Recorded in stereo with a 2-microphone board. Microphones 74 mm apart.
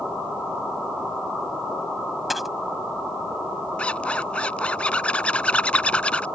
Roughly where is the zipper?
Centre.